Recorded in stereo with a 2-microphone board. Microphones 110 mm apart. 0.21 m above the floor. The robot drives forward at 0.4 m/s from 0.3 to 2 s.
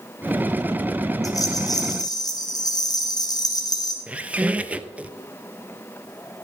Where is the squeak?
10° right (ahead or behind), 0.6 m.